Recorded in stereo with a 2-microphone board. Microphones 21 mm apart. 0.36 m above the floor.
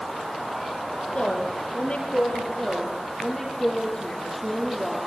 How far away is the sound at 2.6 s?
About 7 m.